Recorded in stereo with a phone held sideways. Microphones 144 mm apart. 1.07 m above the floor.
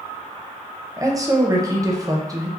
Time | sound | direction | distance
1.0 | a woman speaking | 25° right (ahead or behind) | 0.6 m